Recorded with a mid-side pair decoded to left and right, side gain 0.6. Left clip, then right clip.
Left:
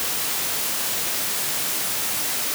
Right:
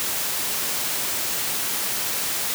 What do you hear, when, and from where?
Only background noise.